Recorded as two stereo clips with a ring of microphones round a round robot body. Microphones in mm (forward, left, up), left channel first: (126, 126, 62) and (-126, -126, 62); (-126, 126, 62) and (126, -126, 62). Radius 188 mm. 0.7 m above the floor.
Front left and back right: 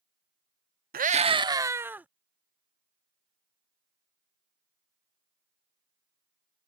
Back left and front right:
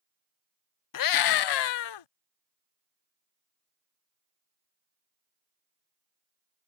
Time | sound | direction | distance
0.9 | a scream | 160° left | ?